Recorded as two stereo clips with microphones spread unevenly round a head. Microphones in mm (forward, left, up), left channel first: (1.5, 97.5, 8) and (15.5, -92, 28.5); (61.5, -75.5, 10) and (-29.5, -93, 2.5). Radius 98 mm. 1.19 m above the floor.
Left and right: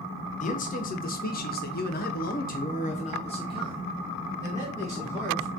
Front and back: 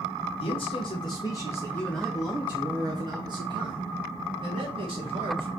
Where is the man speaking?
50° left, 1.2 m; by 5.5 s 170° left, 2.0 m.